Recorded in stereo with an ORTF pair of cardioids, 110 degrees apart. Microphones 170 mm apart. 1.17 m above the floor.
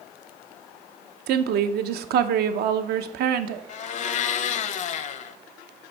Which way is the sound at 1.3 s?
70° right.